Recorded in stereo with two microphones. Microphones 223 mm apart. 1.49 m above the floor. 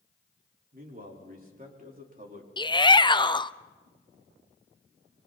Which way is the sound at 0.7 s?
40° right (ahead or behind).